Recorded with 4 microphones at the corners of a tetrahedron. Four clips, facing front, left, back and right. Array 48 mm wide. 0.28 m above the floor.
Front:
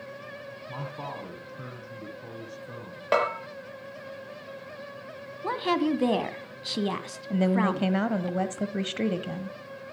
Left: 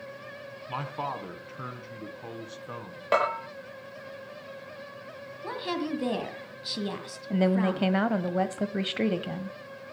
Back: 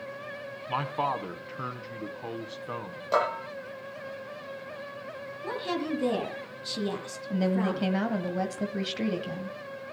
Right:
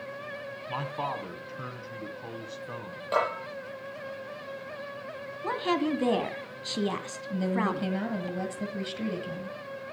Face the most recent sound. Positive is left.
turn(degrees=70)